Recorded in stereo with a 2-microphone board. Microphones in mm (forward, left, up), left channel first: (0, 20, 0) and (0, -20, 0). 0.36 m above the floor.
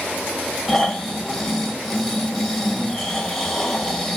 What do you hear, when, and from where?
0.7 s snoring: 5° left (ahead or behind), 1.9 m